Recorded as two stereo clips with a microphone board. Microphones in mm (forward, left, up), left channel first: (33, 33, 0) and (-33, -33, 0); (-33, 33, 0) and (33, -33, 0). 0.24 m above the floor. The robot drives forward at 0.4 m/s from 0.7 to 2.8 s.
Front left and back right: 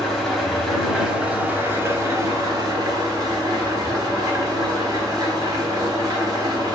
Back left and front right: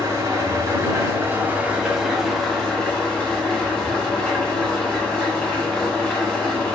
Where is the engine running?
45° right, 0.7 m; by 6.8 s 150° right, 0.8 m.